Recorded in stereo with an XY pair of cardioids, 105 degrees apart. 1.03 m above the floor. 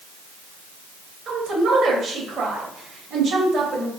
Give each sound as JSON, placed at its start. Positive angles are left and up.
{"t": 1.3, "sound": "a woman speaking", "azimuth_deg": -60, "distance_m": 1.0}